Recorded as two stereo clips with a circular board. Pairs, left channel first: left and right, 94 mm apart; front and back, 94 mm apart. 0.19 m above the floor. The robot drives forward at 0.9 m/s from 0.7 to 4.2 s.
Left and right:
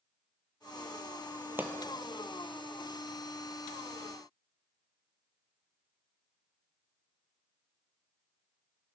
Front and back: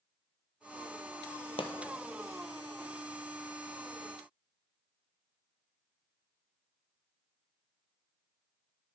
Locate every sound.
1.6 s a pop: 20° right, 1.2 m